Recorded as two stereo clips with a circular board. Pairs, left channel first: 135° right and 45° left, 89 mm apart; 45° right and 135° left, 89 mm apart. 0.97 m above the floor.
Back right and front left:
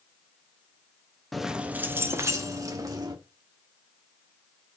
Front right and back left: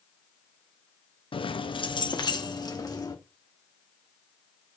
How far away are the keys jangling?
About 0.7 m.